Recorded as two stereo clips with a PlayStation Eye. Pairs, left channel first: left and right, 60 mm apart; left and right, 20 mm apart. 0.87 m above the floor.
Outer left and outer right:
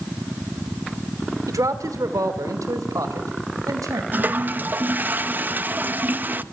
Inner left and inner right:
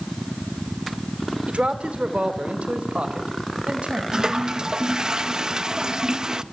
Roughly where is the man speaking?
Right.